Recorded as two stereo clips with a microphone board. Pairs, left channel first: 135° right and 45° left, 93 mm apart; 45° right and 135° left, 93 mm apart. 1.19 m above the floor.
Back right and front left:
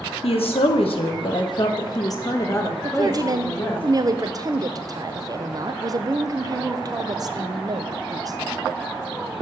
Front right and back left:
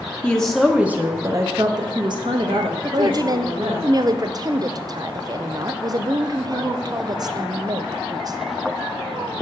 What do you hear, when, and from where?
0.2 s a woman speaking: 125° right, 0.8 m; by 3.8 s 155° left, 1.8 m
2.8 s a woman speaking: 90° left, 0.5 m